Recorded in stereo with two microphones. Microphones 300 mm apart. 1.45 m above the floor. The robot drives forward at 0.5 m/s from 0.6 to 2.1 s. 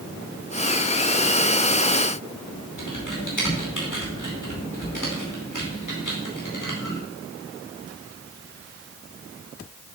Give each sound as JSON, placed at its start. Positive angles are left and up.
{"t": 2.8, "sound": "typing on a keyboard", "side_deg": 90, "distance_m": 4.5}